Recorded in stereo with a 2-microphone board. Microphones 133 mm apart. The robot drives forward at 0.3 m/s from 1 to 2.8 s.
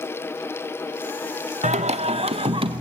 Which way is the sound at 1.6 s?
60° right (ahead or behind).